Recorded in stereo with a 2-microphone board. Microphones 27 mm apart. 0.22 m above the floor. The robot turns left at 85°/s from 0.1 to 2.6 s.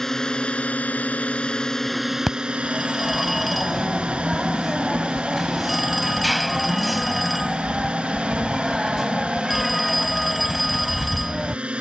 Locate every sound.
0.0 s a drone: 165° left; by 11.8 s 50° right
2.3 s a phone ringing: 10° left (ahead or behind); by 11.6 s centre (ahead or behind)